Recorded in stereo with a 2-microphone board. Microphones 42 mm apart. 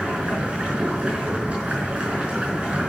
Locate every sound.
0.0 s running water: 25° right (ahead or behind), 5 m